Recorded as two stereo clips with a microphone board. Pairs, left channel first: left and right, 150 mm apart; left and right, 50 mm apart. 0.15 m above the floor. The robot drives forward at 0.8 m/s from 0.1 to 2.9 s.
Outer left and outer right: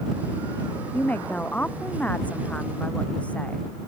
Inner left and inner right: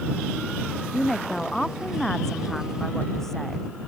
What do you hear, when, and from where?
0.9 s a woman speaking: 10° left (ahead or behind)